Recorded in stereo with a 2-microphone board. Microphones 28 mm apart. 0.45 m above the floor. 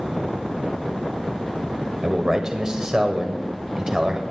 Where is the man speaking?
25° right (ahead or behind), 1.8 m.